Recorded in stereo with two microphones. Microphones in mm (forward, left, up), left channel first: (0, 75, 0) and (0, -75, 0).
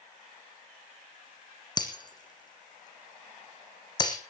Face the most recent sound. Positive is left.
turn(degrees=30)  # may be behind; listen again after turning